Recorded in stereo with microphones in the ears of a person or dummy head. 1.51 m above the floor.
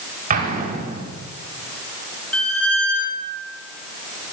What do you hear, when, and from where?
0.3 s an explosion: 40° right (ahead or behind), 5.5 m
2.3 s a squeak: 5° left (ahead or behind), 4.5 m